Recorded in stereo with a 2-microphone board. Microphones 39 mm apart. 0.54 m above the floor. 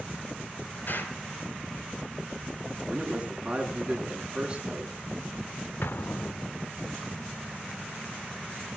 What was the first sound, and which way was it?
An explosion, 55° left (ahead or behind).